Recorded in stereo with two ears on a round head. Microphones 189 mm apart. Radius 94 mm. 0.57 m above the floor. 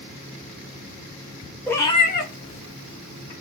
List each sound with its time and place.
1.7 s a cat meowing: 5° left (ahead or behind), 0.6 m; by 3.3 s 85° left, 1.0 m